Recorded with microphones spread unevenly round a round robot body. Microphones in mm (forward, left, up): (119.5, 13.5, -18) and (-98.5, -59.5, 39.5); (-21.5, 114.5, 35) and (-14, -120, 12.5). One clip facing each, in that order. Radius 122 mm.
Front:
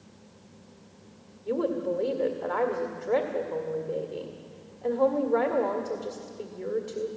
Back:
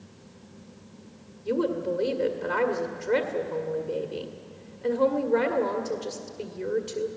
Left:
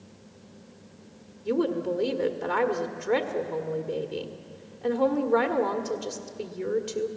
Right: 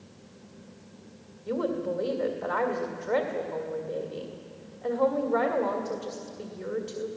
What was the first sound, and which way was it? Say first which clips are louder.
A woman speaking: back 1 dB, left 3 dB; 120° left.